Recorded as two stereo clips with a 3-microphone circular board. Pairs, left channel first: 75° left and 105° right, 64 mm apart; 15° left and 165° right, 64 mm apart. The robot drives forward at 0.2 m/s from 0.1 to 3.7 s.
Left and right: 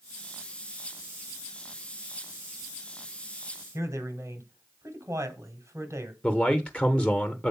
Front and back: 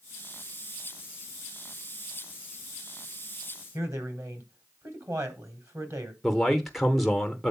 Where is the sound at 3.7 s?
140° right, 1.9 m.